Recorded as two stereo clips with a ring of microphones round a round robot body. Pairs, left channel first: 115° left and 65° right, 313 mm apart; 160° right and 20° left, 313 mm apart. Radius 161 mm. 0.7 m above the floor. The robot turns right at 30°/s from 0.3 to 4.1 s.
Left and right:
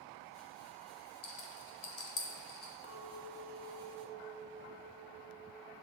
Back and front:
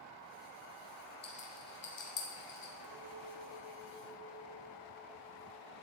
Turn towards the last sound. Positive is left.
turn(degrees=90)